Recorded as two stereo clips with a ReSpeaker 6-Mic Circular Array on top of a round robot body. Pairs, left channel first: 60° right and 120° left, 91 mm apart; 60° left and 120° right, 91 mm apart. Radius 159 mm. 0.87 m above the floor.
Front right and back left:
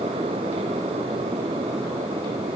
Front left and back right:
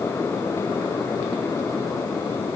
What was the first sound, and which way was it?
Only background noise.